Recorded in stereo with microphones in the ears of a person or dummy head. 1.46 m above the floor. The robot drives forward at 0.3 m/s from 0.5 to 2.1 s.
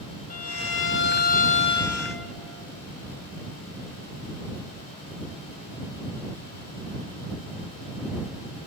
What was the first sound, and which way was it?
A violin, 40° left (ahead or behind).